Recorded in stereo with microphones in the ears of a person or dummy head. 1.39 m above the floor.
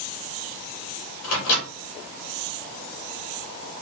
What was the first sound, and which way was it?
A microwave, 85° left.